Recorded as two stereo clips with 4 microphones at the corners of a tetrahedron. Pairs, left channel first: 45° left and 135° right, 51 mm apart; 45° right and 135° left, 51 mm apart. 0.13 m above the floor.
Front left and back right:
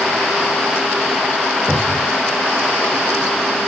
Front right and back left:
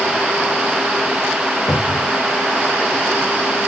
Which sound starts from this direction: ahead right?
A cupboard door, at 1.7 s.